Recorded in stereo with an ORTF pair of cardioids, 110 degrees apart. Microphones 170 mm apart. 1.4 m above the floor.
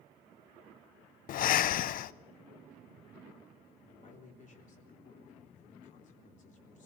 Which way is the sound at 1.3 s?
60° left.